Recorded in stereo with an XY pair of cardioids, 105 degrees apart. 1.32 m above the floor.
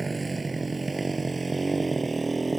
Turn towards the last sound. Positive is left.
turn(degrees=-20)